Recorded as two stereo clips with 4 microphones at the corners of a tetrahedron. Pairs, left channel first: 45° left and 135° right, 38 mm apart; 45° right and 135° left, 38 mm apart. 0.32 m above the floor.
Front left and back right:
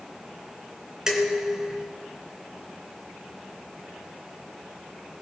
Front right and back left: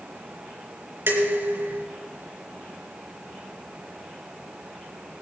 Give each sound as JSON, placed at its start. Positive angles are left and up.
{"t": 1.1, "sound": "dishes clattering", "azimuth_deg": 150, "distance_m": 3.0}